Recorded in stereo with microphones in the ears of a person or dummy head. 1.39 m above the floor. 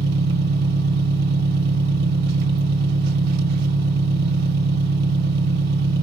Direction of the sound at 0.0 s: 60° right (ahead or behind).